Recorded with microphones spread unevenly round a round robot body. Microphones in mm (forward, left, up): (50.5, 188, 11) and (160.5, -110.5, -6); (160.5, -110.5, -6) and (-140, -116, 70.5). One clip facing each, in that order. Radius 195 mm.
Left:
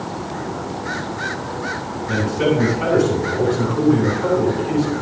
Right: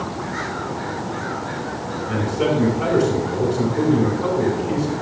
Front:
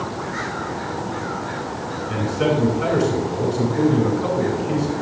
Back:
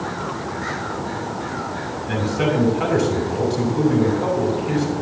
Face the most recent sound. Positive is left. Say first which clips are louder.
# left 2 dB, even
turn(degrees=180)